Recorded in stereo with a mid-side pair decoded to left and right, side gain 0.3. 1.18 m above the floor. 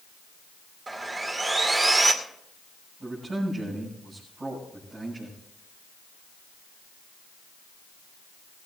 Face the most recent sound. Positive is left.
turn(degrees=-50)